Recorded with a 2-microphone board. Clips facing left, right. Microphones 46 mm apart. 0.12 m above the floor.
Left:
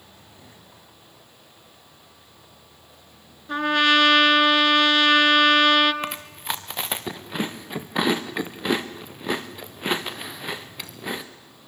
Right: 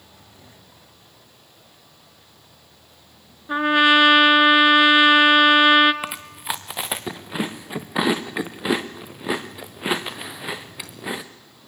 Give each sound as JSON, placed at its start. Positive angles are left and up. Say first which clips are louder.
{"t": 3.5, "sound": "a trumpet", "louder": "right 3 dB", "side_deg": -15, "distance_m": 1.4}
{"t": 6.0, "sound": "chewing", "louder": "right 1 dB", "side_deg": -5, "distance_m": 1.6}